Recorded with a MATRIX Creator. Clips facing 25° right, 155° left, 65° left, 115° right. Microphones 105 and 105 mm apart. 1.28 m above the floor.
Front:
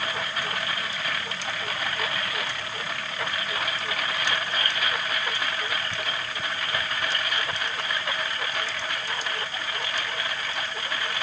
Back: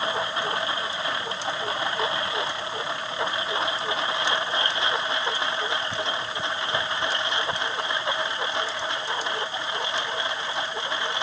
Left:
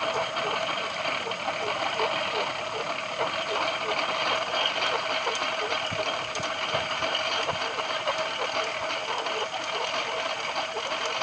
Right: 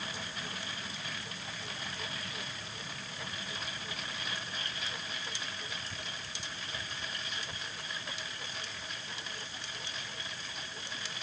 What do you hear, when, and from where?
0.0 s a lawn mower: 90° left